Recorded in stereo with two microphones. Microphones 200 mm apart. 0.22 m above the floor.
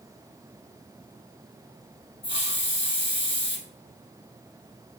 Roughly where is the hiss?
Left.